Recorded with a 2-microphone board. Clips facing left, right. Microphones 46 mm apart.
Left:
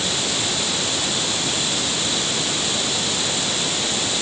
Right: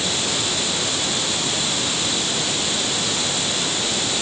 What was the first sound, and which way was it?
Only background noise.